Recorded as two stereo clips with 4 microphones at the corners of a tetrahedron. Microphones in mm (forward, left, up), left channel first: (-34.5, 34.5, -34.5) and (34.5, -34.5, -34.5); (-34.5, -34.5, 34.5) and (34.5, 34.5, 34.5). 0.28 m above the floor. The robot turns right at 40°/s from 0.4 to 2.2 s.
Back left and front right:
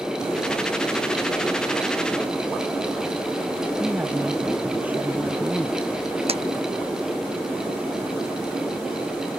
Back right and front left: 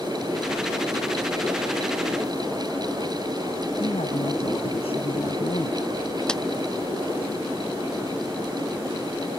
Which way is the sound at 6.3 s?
55° right.